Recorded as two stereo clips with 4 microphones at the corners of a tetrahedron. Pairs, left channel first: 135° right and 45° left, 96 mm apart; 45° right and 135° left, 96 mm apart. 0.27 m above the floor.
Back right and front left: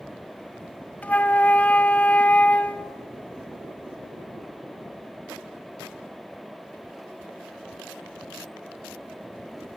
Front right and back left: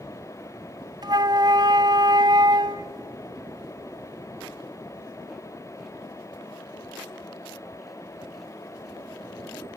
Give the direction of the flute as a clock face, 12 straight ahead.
7 o'clock.